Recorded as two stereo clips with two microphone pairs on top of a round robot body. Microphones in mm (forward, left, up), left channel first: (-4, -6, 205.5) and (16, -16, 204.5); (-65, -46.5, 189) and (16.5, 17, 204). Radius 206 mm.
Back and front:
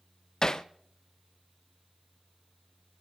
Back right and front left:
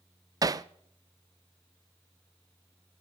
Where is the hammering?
95° left, 0.5 m.